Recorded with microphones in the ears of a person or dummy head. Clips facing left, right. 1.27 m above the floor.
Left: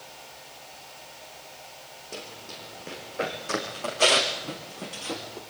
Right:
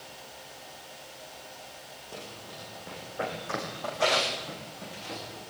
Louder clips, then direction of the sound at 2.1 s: Left 2 dB; 30° left (ahead or behind).